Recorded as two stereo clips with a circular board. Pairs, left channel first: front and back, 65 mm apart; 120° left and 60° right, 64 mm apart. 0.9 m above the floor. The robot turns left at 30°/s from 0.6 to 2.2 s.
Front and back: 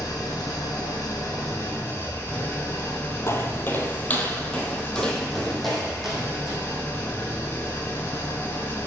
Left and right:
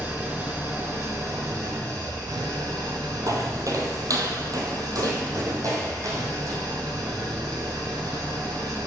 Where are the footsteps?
40° right, 1.7 m; by 6.6 s 95° right, 3 m.